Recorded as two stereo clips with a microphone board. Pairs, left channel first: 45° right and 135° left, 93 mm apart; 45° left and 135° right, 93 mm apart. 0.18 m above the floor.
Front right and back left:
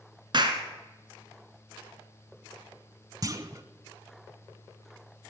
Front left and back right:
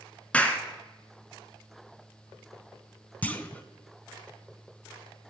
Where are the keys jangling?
No keys jangling in this recording.